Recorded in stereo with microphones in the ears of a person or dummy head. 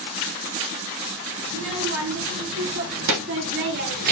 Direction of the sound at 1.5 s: 70° right (ahead or behind).